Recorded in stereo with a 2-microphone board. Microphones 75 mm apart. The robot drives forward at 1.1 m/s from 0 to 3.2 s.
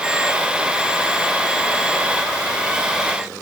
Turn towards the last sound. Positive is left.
No sound to turn to.